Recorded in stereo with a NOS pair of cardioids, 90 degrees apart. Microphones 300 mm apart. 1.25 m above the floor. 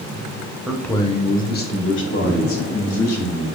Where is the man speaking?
5° right, 0.6 m; by 3.5 s 55° left, 1.8 m.